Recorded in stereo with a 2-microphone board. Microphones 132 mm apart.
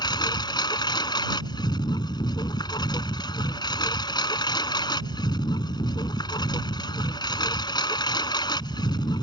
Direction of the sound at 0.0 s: 35° left (ahead or behind).